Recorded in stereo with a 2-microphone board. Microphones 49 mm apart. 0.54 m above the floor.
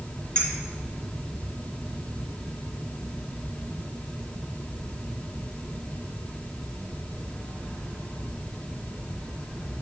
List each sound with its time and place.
0.3 s a clink: 25° left (ahead or behind), 2 m